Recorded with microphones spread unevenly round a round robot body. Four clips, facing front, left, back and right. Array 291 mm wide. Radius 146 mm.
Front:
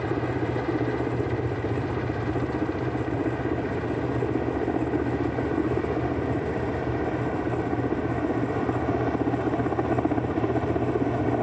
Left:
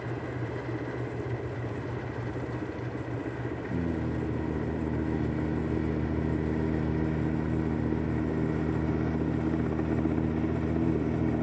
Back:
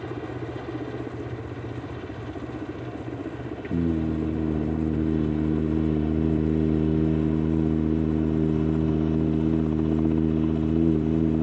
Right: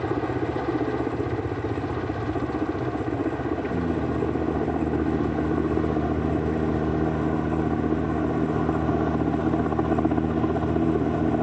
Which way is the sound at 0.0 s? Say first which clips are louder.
Right 10 dB, front 6 dB; 60° right.